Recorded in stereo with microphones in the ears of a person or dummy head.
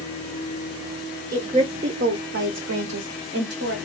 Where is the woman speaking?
20° right (ahead or behind), 0.6 m; by 3.8 s 55° right (ahead or behind), 1.0 m.